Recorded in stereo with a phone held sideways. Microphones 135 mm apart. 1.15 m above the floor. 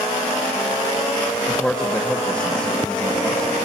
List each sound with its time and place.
1.5 s a man speaking: 10° left (ahead or behind), 1.8 m